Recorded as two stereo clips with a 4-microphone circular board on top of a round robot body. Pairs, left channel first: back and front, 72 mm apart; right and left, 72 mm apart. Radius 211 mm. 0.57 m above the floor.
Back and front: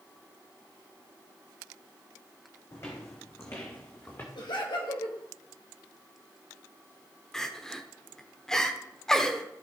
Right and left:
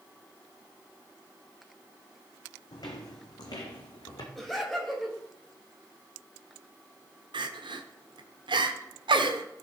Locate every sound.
2.7 s footsteps: 125° right, 1.7 m; by 4.2 s 120° right, 2.5 m
4.3 s laughter: 175° right, 3 m
7.3 s crying: 95° left, 0.8 m